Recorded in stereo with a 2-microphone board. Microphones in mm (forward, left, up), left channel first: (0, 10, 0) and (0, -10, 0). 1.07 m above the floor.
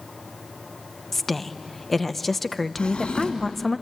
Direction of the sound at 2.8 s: 65° left (ahead or behind).